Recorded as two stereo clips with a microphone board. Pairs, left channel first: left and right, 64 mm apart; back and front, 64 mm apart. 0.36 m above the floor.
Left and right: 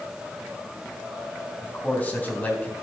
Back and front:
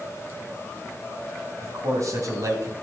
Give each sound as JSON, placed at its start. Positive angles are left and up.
{"t": 1.6, "sound": "a man speaking", "azimuth_deg": 25, "distance_m": 3.0}